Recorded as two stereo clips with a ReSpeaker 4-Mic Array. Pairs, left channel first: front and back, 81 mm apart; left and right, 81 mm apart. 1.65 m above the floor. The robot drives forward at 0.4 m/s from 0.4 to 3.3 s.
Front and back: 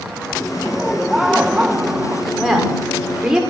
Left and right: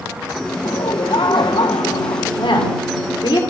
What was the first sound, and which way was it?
Laughter, 85° left.